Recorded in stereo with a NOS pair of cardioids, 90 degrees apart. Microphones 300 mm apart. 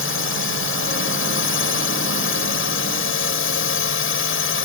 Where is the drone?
45° left.